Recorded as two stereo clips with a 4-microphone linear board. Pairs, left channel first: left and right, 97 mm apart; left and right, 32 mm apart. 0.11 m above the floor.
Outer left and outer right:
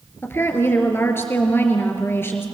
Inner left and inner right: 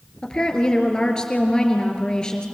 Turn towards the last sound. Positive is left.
turn(degrees=25)  # may be behind; listen again after turning